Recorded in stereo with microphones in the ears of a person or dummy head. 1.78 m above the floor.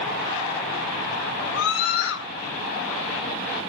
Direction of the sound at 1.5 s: 80° left.